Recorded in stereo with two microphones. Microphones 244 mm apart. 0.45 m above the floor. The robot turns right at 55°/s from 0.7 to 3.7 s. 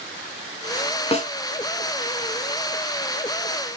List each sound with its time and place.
1.1 s a snare drum: 25° left (ahead or behind), 0.9 m; by 1.3 s 35° left (ahead or behind), 0.9 m